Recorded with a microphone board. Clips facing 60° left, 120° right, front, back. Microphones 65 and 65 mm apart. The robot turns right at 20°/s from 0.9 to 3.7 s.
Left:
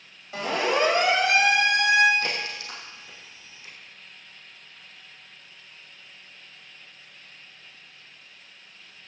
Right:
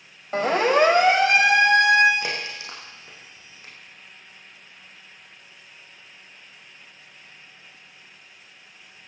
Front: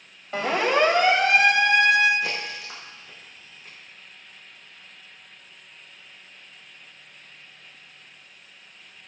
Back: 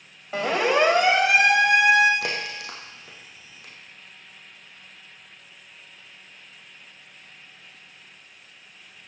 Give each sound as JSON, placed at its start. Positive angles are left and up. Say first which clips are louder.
{"t": 0.3, "sound": "a siren", "louder": "right 6 dB, back 1 dB", "azimuth_deg": -90, "distance_m": 3.0}
{"t": 2.2, "sound": "a crack", "louder": "even, even", "azimuth_deg": 165, "distance_m": 6.0}